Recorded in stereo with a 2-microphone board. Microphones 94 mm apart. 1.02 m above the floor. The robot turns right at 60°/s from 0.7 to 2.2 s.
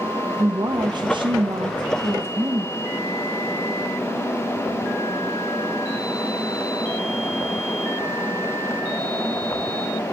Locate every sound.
0.4 s a woman speaking: 125° right, 0.5 m; by 2.7 s 35° right, 0.5 m